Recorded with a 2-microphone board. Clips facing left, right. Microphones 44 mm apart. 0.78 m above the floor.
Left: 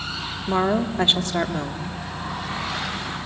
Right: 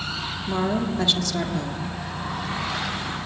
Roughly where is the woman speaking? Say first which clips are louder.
Left 3 dB; left.